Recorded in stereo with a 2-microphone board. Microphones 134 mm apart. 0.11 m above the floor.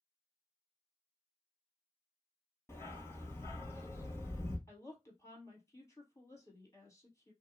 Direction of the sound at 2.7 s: 20° left (ahead or behind).